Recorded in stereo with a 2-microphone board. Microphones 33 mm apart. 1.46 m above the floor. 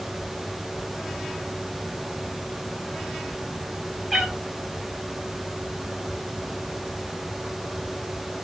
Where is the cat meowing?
5° right (ahead or behind), 1.4 m.